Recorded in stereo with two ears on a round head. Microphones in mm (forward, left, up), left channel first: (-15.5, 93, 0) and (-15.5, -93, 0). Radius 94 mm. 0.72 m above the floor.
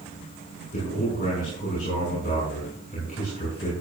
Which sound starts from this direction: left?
A man speaking, at 0.7 s.